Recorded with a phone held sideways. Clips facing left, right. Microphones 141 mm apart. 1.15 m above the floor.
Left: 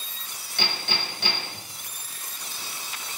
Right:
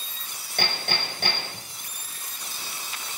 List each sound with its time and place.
0.6 s hammering: 50° right (ahead or behind), 4.5 m